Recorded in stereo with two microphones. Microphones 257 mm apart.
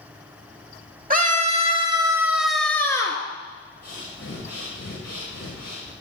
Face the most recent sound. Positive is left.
turn(degrees=80)